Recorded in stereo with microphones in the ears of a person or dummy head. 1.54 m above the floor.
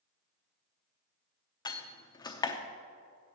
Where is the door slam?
15° left (ahead or behind), 0.8 m.